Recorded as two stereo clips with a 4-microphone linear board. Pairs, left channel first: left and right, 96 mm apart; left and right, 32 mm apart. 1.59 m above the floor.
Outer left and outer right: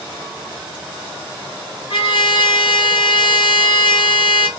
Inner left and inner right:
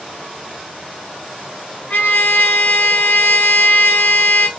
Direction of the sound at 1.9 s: 65° left (ahead or behind).